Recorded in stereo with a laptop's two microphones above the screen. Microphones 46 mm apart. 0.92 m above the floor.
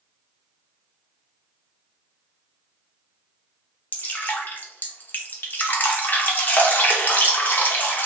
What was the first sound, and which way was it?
Dripping, 40° left (ahead or behind).